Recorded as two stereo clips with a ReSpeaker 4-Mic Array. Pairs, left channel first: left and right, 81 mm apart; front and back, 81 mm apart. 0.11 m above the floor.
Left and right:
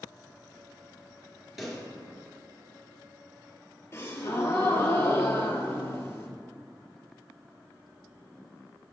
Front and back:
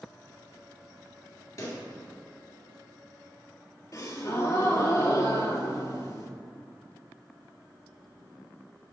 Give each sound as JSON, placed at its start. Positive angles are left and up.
{"t": 1.6, "sound": "a pop", "azimuth_deg": -5, "distance_m": 1.8}
{"t": 3.9, "sound": "a gasp", "azimuth_deg": 40, "distance_m": 0.8}